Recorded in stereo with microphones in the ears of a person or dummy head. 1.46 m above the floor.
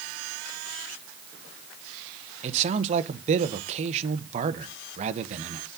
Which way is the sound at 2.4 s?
35° right (ahead or behind).